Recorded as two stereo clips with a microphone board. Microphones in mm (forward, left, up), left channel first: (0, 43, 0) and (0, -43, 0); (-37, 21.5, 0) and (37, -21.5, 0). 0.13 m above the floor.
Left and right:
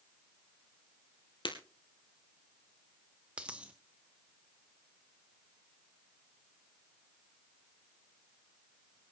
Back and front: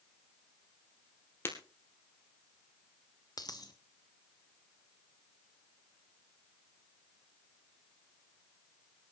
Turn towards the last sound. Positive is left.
turn(degrees=-165)